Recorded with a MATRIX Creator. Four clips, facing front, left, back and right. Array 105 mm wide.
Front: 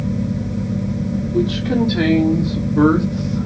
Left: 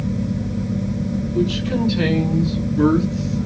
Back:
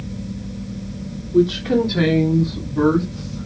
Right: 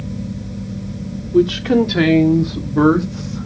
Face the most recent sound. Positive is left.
turn(degrees=-50)